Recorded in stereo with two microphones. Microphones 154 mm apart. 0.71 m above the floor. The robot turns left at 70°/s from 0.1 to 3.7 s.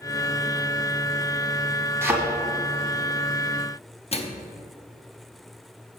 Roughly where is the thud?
Centre.